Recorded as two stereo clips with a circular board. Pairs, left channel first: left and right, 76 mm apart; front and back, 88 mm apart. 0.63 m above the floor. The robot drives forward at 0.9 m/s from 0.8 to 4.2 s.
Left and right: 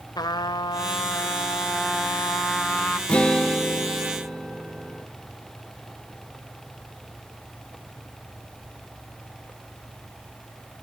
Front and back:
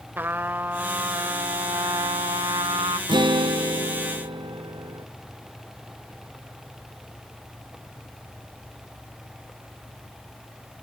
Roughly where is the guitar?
Behind.